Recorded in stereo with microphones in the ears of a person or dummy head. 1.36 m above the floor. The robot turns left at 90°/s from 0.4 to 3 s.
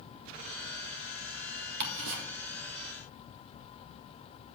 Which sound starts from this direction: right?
Ticking, at 1.8 s.